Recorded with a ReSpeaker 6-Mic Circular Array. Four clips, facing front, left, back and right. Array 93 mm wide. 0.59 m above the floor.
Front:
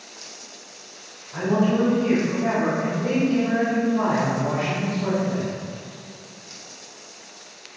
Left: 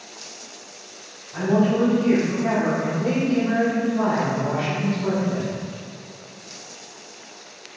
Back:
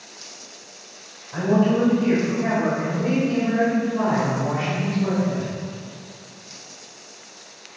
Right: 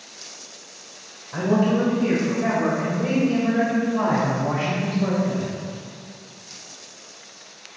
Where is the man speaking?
120° right, 3 m; by 5.5 s 80° right, 4 m.